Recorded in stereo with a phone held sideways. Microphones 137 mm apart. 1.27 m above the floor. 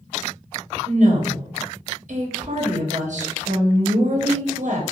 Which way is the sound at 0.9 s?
65° right (ahead or behind).